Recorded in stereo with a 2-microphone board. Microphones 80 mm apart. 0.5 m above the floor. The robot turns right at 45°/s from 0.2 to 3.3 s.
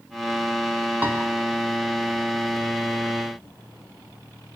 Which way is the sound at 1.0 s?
20° right (ahead or behind).